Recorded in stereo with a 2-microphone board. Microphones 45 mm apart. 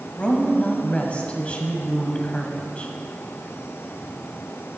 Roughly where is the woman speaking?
Left.